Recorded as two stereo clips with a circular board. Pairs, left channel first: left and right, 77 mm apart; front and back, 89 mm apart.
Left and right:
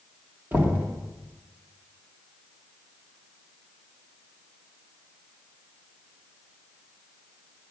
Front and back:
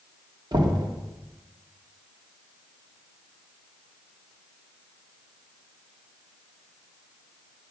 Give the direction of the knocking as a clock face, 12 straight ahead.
5 o'clock.